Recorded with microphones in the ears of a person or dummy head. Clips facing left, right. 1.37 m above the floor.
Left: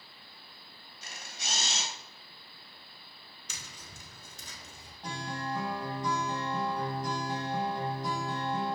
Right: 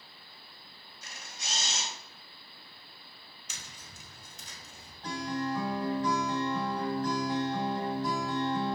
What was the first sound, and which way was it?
A camera shutter, 65° left (ahead or behind).